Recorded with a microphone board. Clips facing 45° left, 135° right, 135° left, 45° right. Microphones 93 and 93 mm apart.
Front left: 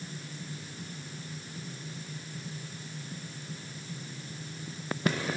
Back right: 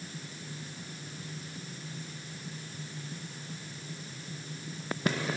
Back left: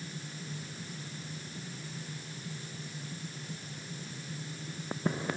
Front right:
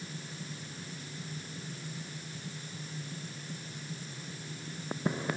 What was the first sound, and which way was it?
Only background noise.